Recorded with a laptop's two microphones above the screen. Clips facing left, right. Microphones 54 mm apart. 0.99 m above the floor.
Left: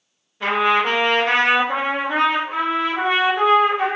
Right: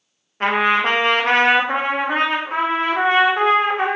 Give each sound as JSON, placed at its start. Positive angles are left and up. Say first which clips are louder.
{"t": 0.4, "sound": "a trumpet", "louder": "right 1 dB", "side_deg": -50, "distance_m": 0.5}